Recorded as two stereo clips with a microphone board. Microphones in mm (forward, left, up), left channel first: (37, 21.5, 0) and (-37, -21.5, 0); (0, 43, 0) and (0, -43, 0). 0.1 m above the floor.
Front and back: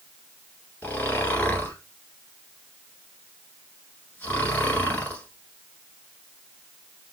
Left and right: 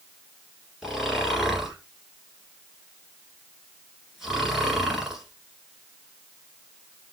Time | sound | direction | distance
0.8 | snoring | 10° right | 1.4 m